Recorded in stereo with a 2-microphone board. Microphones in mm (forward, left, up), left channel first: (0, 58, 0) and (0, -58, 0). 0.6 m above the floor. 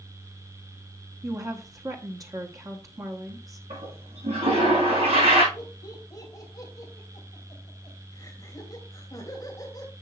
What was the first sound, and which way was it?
A woman speaking, 30° right (ahead or behind).